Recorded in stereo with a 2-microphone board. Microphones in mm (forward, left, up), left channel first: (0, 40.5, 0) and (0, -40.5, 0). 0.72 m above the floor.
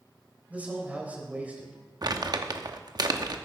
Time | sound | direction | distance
0.5 | a man speaking | 20° right (ahead or behind) | 3 m
2.0 | crumpling | 55° right (ahead or behind) | 0.9 m